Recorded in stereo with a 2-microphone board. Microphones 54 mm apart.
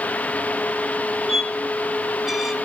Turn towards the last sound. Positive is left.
turn(degrees=-5)  # may be behind; listen again after turning